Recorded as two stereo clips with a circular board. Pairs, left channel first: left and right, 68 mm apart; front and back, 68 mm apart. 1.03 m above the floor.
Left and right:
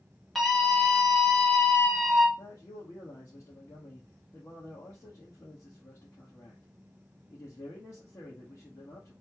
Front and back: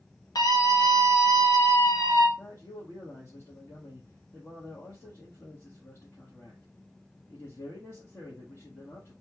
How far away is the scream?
About 1.8 m.